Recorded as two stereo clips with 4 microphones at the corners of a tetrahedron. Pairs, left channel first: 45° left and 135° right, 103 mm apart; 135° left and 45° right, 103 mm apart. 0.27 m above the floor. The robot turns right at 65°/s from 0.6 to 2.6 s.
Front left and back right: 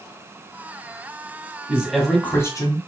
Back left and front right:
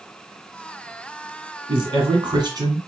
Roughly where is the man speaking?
Ahead right.